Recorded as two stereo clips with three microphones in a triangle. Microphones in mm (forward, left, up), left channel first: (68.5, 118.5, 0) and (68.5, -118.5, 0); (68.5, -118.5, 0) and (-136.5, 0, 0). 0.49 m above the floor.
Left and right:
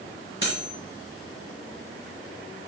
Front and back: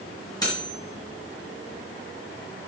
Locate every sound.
0.4 s cutlery clinking: 45° left, 4 m